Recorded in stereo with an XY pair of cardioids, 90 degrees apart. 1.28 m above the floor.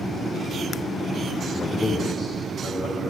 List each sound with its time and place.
1.5 s a man speaking: 30° left, 0.6 m; by 3.1 s 50° left, 2 m